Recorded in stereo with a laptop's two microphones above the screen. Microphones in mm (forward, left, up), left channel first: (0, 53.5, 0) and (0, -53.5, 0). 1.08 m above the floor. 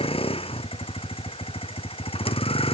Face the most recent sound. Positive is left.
turn(degrees=65)  # may be behind; listen again after turning